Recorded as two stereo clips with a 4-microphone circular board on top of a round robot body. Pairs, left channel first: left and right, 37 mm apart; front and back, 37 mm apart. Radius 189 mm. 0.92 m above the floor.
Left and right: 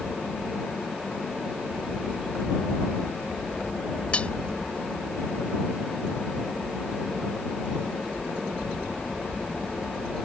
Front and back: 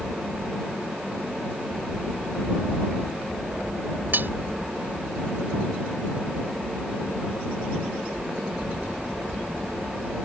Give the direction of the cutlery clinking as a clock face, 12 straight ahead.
7 o'clock.